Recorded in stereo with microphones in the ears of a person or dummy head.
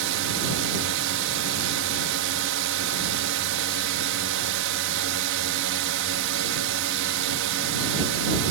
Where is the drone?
70° right (ahead or behind).